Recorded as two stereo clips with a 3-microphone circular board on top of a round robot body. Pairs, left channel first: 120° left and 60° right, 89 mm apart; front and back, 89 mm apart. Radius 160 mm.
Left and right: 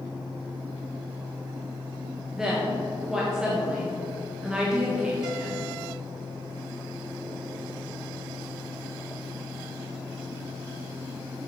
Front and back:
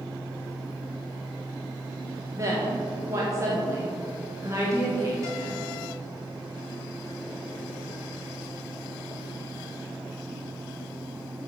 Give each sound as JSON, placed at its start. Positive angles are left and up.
{"t": 2.3, "sound": "a woman speaking", "azimuth_deg": -140, "distance_m": 1.6}